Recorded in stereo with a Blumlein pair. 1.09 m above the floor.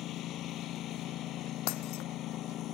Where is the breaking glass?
45° left.